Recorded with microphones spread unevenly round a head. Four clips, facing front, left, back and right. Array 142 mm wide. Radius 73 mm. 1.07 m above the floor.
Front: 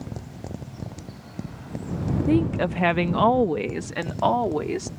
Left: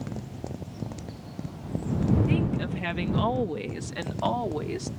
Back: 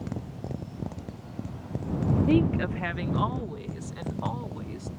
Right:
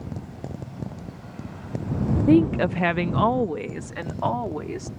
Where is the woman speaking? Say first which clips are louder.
Right 10 dB, front 4 dB; 90° right; by 4.9 s 5° left.